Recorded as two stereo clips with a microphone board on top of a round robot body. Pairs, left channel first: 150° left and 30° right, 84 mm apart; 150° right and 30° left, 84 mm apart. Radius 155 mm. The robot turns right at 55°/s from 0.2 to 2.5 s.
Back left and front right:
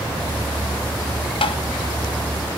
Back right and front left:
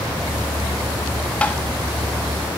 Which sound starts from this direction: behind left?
Tapping, at 1.4 s.